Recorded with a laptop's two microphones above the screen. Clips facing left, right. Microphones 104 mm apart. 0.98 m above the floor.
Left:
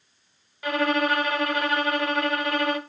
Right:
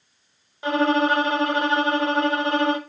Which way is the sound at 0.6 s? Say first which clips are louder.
Right 4 dB; 30° right (ahead or behind).